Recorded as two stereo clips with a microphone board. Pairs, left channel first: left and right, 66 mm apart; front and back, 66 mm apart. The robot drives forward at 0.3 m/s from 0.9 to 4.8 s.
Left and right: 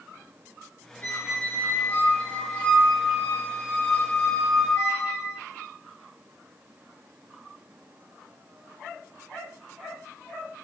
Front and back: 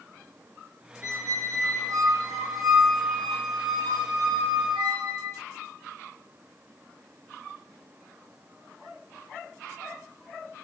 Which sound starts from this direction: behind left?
A squeak, at 1.0 s.